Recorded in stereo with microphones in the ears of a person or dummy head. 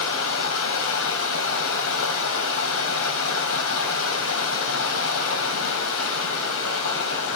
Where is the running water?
70° left (ahead or behind), 2.5 m.